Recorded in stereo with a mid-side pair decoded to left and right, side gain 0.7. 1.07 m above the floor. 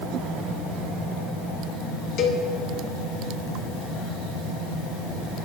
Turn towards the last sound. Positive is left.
turn(degrees=55)